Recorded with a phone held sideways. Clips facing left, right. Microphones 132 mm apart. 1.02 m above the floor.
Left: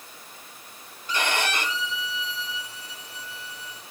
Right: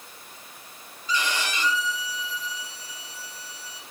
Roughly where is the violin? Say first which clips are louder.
Left 2 dB; left.